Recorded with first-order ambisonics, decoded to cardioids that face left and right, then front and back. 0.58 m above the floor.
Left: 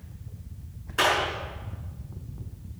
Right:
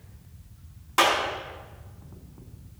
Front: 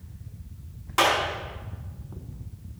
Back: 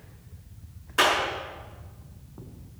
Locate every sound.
1.0 s a clap: 50° right, 4.5 m